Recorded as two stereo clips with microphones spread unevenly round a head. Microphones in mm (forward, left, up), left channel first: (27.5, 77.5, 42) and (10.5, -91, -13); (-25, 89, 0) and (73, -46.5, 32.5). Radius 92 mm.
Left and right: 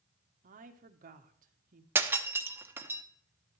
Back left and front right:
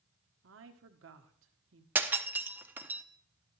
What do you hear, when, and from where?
0.4 s a woman speaking: 70° right, 1.2 m
1.9 s breaking glass: straight ahead, 0.8 m